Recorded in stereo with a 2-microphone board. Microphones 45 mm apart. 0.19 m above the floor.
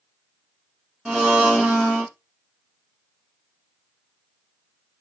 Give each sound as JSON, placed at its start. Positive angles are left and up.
{"t": 1.1, "sound": "a blender", "side_deg": -15, "distance_m": 1.6}